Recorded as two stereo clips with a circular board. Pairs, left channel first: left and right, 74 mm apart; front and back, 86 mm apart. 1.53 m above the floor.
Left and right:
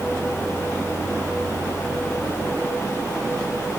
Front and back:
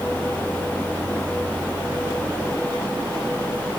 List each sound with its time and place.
Only background noise.